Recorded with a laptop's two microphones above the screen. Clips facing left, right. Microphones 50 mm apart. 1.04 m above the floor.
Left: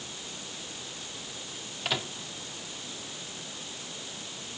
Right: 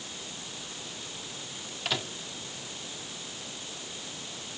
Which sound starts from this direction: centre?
A microwave, at 1.9 s.